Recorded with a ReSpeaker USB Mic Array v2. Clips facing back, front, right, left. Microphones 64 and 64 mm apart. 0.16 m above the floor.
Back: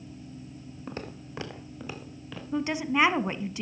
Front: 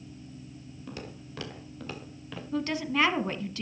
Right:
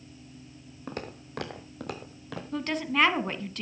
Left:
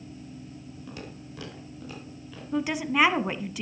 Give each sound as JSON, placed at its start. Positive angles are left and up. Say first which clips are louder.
{"t": 0.9, "sound": "footsteps", "louder": "back 3 dB, right 5 dB", "azimuth_deg": -130, "distance_m": 3.0}
{"t": 2.5, "sound": "a woman speaking", "louder": "back 2 dB, left 2 dB", "azimuth_deg": 155, "distance_m": 1.1}